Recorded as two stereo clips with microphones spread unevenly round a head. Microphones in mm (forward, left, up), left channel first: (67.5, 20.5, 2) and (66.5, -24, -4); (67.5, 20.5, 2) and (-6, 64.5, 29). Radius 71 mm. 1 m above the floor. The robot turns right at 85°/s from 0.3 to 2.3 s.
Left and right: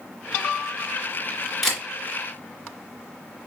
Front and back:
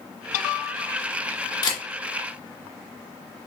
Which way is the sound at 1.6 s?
Straight ahead.